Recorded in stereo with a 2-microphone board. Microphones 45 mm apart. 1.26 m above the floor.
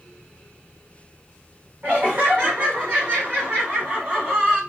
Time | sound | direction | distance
1.8 | laughter | 40° right (ahead or behind) | 0.9 m